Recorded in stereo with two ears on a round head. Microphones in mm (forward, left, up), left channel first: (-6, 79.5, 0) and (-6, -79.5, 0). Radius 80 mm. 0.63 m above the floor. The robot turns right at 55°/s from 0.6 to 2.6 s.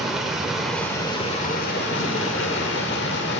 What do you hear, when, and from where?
0.0 s running water: straight ahead, 1.1 m; by 3.4 s 110° left, 1.1 m